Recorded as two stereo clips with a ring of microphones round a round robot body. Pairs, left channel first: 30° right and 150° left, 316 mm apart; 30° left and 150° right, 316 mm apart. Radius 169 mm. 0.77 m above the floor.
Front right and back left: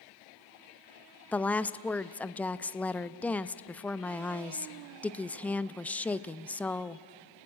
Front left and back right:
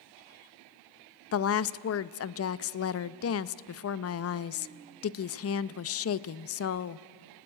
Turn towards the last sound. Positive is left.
turn(degrees=55)